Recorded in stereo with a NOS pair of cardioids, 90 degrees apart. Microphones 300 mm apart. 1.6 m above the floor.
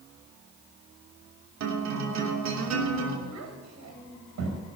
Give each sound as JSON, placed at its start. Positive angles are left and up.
{"t": 1.6, "sound": "a guitar", "azimuth_deg": -65, "distance_m": 3.0}
{"t": 3.3, "sound": "a child speaking", "azimuth_deg": -65, "distance_m": 5.0}